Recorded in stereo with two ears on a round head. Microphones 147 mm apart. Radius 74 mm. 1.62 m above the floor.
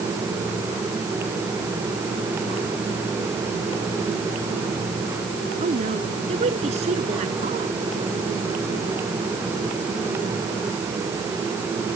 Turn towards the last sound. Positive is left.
turn(degrees=-40)  # may be behind; listen again after turning